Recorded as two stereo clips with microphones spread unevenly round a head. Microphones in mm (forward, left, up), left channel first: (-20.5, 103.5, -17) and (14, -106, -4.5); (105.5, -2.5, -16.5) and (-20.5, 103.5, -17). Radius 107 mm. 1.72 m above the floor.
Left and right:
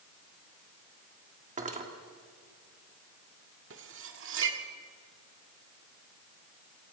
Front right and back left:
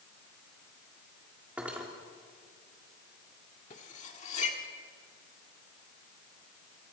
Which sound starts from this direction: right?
Cutlery clinking, at 3.7 s.